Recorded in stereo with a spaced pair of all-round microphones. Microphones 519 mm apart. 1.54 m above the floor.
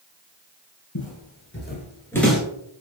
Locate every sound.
0.9 s footsteps: 35° left (ahead or behind), 1.8 m; by 2.4 s 5° right (ahead or behind), 1.5 m